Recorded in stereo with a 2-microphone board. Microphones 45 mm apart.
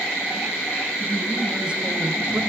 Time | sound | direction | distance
1.0 | a man speaking | 15° right (ahead or behind) | 5.5 m